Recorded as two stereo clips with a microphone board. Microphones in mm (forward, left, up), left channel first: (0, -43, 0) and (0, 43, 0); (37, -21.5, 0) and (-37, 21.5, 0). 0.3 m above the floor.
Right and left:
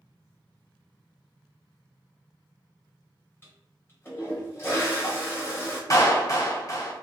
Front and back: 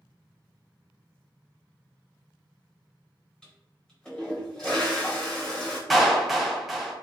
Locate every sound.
3.4 s a toilet flushing: 100° right, 1.2 m
5.9 s a clap: 120° right, 1.7 m